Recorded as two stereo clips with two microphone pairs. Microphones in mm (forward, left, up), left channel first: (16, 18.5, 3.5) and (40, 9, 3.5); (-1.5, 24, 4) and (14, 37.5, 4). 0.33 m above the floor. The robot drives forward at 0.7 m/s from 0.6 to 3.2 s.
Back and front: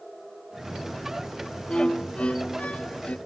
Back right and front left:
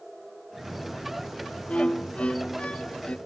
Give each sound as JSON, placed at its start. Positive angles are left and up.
{"t": 1.7, "sound": "a violin", "azimuth_deg": -150}